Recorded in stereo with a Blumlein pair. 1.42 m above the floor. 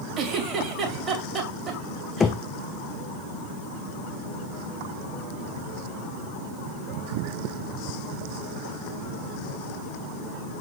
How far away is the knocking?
About 0.8 m.